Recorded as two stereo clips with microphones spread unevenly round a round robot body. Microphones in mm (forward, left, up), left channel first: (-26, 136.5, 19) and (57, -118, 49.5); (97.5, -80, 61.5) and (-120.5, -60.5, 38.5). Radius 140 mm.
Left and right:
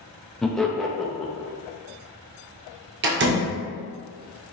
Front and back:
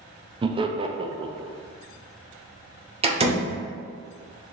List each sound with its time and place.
0.4 s laughter: straight behind, 0.6 m
3.0 s a door slam: 125° right, 0.9 m